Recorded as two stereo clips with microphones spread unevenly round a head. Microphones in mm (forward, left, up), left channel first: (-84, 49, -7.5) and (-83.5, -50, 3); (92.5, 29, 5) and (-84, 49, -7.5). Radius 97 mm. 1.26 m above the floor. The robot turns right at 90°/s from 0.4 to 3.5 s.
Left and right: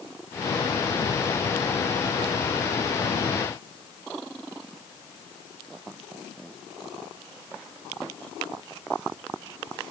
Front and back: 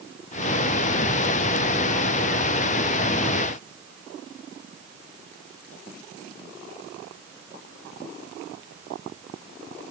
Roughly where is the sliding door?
No sliding door in this recording.